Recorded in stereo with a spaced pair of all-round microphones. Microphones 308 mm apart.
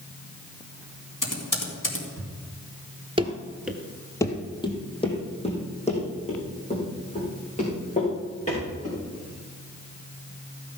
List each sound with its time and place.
1.2 s typing on a keyboard: 85° left, 2.5 m
3.2 s running footsteps: 20° right (ahead or behind), 1.2 m; by 9.0 s 25° left (ahead or behind), 8.5 m